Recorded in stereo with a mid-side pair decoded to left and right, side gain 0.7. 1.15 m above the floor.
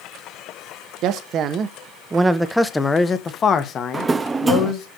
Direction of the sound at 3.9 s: 20° right.